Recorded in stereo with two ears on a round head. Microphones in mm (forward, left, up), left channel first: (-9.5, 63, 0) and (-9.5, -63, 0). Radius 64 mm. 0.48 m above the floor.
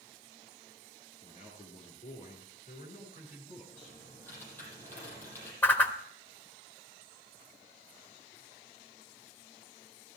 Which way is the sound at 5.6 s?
15° left (ahead or behind).